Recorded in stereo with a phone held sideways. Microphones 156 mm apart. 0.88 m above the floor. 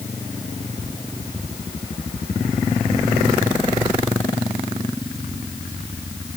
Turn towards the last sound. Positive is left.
No sound to turn to.